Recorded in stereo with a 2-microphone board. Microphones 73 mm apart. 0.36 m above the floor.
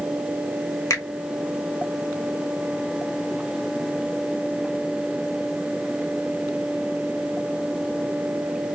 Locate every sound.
0.9 s a finger snap: 45° left (ahead or behind), 1.2 m